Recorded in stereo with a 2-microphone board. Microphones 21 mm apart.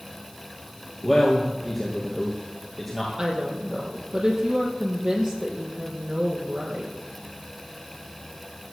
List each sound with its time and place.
1.0 s a man speaking: 5° right (ahead or behind), 3 m
3.2 s a woman speaking: 40° right (ahead or behind), 4.5 m